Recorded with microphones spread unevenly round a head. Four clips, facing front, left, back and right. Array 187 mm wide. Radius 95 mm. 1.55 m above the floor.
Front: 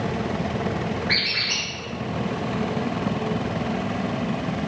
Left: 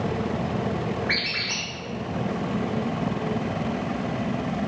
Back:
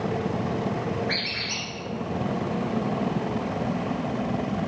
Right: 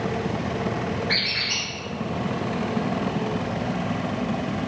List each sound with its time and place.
1.1 s a squeak: 65° left, 0.6 m